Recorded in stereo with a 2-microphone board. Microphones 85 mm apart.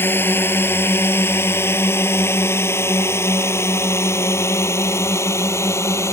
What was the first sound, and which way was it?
A drone, 25° left (ahead or behind).